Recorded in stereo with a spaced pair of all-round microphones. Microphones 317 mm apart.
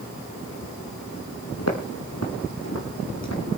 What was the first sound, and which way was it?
Footsteps, 50° left (ahead or behind).